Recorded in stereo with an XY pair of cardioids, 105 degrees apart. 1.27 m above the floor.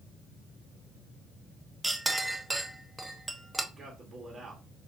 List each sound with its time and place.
1.8 s a clink: 10° right, 0.9 m
3.7 s a man speaking: 35° right, 2 m